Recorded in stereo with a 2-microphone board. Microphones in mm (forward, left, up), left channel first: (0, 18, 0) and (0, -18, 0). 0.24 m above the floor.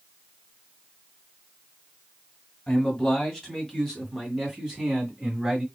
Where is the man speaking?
20° left (ahead or behind), 1.7 m; by 5.7 s 15° right (ahead or behind), 2.5 m.